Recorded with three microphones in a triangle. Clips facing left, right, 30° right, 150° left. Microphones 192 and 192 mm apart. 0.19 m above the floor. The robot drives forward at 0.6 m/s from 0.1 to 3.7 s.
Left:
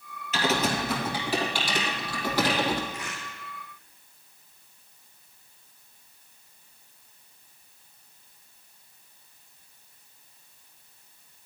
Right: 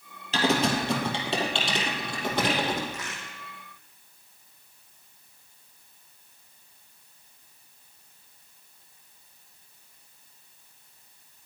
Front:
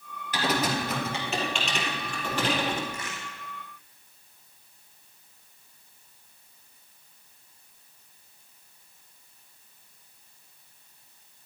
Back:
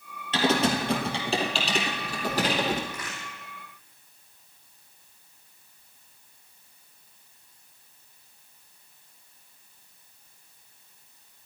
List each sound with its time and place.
0.3 s typing on a keyboard: 145° right, 2 m; by 2.8 s 160° right, 3.5 m
2.9 s a crack: 90° right, 6 m; by 3.2 s 95° right, 6 m